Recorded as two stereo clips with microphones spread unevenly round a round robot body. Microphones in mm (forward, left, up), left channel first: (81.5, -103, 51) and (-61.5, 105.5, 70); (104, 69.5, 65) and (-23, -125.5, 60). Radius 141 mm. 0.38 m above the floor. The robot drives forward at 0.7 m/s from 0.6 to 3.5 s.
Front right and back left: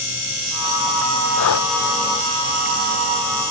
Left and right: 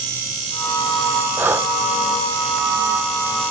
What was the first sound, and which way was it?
Breathing, 40° right.